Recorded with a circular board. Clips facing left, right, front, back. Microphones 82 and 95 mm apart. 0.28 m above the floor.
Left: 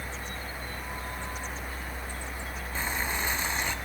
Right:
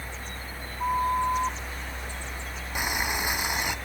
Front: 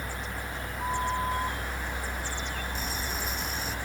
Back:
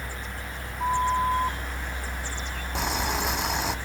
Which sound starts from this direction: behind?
Boiling, at 2.8 s.